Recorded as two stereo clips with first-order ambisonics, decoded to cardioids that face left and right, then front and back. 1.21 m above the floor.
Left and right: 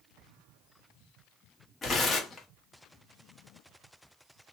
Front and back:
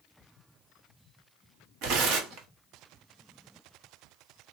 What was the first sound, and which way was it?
Tearing paper, 155° left.